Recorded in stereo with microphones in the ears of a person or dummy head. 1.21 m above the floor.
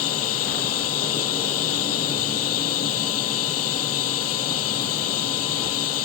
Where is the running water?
85° left.